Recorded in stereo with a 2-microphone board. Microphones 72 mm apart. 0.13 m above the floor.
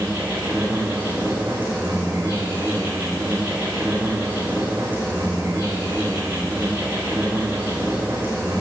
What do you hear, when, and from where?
0.0 s an insect: 25° right (ahead or behind), 4.5 m